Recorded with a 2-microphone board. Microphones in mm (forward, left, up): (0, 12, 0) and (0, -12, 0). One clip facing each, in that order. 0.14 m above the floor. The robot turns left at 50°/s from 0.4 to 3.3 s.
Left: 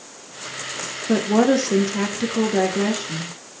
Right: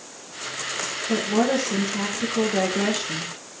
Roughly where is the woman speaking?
Left.